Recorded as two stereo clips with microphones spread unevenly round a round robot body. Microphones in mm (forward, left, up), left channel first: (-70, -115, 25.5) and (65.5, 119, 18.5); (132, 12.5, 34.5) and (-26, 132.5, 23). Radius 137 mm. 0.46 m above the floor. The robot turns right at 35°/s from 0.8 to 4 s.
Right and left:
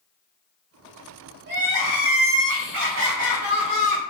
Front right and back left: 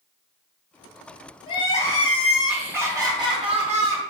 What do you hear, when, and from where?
1.5 s crying: 25° left, 1.3 m; by 4.0 s 115° left, 1.3 m